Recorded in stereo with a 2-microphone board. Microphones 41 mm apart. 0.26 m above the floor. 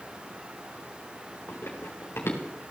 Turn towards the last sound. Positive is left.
turn(degrees=80)